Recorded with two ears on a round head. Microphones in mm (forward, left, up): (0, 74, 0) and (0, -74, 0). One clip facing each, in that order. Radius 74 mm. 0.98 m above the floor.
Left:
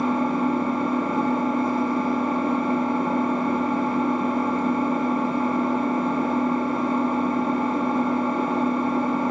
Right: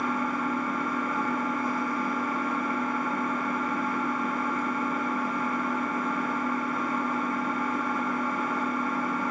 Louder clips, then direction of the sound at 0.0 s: Left 7 dB; 25° left (ahead or behind).